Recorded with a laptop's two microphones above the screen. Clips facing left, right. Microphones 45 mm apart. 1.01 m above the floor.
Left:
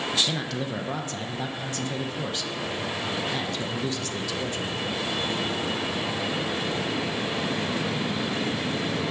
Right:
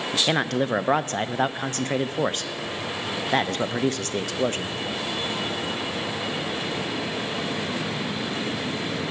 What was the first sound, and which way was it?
A man speaking, 45° right (ahead or behind).